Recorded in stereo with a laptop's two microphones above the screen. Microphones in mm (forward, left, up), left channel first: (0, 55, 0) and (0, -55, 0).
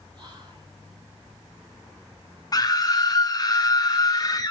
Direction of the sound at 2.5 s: 35° left (ahead or behind).